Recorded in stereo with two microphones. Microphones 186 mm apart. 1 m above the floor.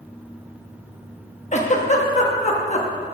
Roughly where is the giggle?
Left.